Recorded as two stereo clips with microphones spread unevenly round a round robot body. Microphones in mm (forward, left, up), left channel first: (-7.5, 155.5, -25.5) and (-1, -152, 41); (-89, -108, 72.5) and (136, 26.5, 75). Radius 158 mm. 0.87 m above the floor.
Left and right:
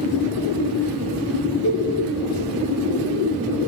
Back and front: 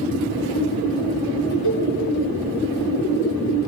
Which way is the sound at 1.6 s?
165° left.